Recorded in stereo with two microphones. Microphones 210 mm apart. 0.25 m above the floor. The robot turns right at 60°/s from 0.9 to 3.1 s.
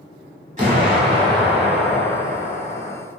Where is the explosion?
55° right, 1.1 m; by 3.0 s 70° left, 1.1 m.